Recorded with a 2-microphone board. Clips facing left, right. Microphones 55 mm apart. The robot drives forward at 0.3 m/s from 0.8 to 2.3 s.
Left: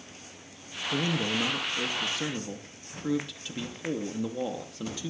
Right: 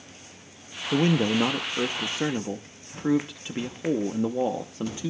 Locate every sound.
0.9 s a man speaking: 35° right (ahead or behind), 0.6 m; by 5.1 s 25° right (ahead or behind), 0.8 m